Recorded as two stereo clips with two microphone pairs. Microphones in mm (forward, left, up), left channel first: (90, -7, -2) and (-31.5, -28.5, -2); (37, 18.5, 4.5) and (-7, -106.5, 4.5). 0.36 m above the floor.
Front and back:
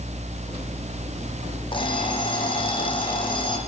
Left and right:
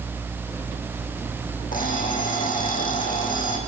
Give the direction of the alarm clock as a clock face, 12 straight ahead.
10 o'clock.